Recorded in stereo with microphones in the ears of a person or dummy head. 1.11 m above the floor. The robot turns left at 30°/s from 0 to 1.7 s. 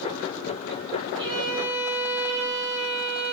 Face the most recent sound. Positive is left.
turn(degrees=-10)  # may be behind; listen again after turning